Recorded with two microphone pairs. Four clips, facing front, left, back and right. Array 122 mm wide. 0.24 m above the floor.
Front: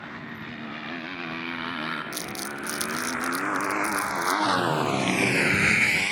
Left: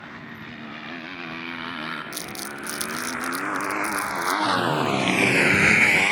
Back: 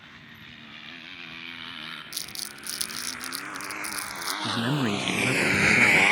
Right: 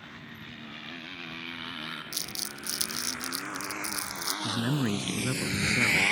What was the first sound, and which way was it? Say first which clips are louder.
A motorcycle: left 7 dB, front 11 dB; 30° left.